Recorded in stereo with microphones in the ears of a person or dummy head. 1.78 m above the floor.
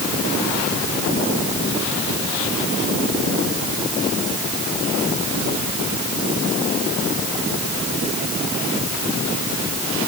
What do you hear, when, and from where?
Only background noise.